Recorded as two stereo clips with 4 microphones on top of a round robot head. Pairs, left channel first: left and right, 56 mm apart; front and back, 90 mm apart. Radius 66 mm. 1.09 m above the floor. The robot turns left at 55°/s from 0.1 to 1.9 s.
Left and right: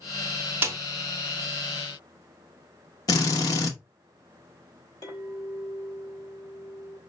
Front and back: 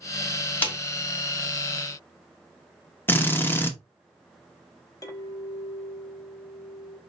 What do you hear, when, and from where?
0.6 s a snare drum: 60° right, 0.8 m; by 0.8 s 65° right, 0.8 m
3.1 s a drill: 70° left, 0.9 m
5.0 s a clink: 50° left, 2.0 m